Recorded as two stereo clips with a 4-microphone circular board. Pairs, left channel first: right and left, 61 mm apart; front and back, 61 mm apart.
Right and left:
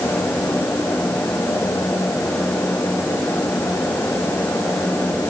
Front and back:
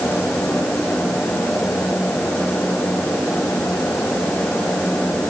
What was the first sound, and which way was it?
Only background noise.